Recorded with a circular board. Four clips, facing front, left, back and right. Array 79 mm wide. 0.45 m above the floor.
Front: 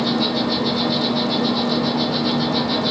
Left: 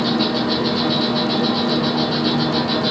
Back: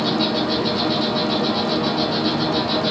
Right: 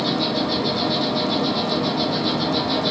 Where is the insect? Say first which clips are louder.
Left 3 dB, even; 95° left, 0.8 m.